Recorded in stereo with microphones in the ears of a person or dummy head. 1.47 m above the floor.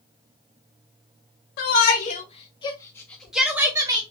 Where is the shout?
50° left (ahead or behind), 1.2 m; by 4.0 s 20° right (ahead or behind), 0.9 m.